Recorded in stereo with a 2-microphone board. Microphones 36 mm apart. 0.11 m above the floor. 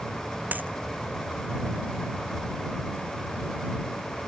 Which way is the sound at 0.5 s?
50° right (ahead or behind).